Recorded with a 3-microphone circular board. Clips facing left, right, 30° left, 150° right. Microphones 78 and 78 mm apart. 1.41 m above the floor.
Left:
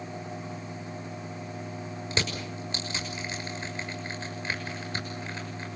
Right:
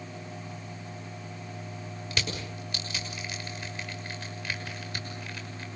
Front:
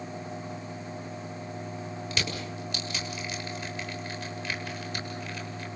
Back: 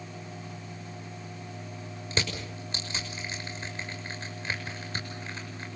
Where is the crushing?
150° left, 6.5 m.